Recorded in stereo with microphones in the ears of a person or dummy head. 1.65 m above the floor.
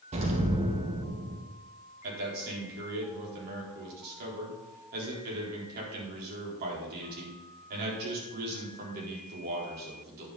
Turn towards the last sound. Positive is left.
turn(degrees=-50)  # may be behind; listen again after turning